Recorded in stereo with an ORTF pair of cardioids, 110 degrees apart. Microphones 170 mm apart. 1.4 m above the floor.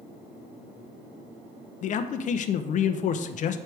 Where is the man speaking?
50° left, 0.6 m.